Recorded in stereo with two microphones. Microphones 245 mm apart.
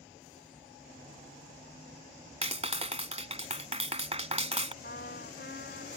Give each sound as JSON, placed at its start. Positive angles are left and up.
{"t": 2.4, "sound": "a clap", "side_deg": -25}
{"t": 4.8, "sound": "a trumpet", "side_deg": 45}